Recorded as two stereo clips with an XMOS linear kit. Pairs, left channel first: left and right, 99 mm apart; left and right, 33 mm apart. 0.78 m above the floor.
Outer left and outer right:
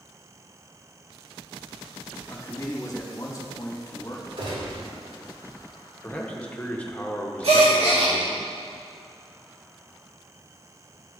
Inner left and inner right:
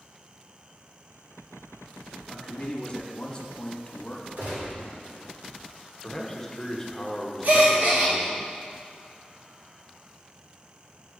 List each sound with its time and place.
2.3 s a man speaking: 30° left (ahead or behind), 0.9 m
4.4 s a gunshot: 75° right (ahead or behind), 2.5 m
6.0 s a man speaking: 15° left (ahead or behind), 0.7 m
7.4 s a gasp: 70° right (ahead or behind), 1.4 m